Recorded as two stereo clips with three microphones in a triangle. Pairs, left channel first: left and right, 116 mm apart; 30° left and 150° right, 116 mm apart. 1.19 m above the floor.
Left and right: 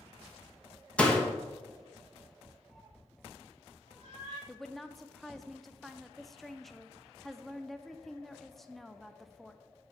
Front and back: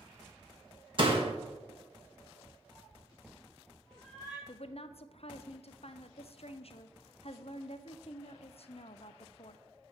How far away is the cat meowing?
About 3 m.